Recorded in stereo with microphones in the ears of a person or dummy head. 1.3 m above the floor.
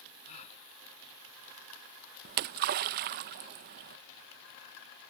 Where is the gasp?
35° left (ahead or behind).